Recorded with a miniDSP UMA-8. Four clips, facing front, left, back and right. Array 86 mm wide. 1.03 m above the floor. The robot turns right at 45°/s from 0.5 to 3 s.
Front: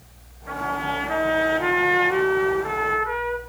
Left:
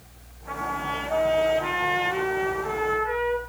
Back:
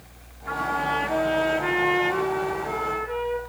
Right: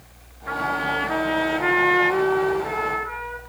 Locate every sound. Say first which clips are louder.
0.5 s a trumpet: right 5 dB, back 1 dB; 95° right, 6.5 m; by 3.4 s 15° left, 6.5 m